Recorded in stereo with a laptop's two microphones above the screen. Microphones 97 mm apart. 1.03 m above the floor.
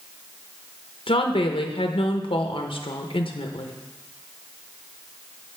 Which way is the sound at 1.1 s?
65° left (ahead or behind).